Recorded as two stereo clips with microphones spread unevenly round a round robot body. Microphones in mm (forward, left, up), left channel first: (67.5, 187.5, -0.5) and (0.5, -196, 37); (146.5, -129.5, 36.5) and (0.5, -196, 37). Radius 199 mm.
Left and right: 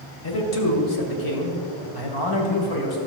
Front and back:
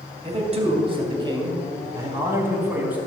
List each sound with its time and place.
0.2 s a man speaking: 130° left, 2 m; by 3.0 s 65° left, 3 m